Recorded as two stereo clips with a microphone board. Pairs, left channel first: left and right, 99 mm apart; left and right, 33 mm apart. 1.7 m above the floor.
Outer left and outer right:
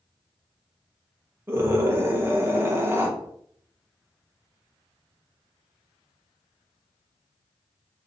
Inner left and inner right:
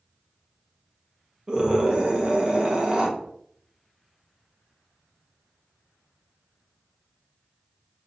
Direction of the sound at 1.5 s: 25° right (ahead or behind).